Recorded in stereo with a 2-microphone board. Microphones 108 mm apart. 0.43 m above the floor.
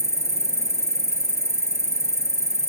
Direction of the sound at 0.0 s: 25° left (ahead or behind).